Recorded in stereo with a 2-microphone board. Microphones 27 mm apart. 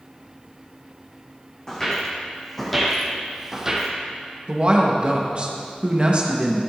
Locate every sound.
1.7 s footsteps: 15° left (ahead or behind), 2 m; by 3.9 s 20° right (ahead or behind), 1.3 m
4.5 s a woman speaking: 45° right (ahead or behind), 1.2 m